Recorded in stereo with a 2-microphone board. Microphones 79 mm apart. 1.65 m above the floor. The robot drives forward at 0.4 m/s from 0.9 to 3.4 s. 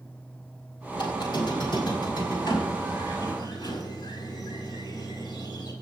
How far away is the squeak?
About 5 m.